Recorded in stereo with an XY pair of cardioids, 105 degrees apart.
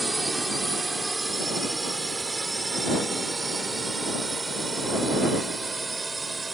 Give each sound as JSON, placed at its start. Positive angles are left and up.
{"t": 0.0, "sound": "a drone", "azimuth_deg": -15}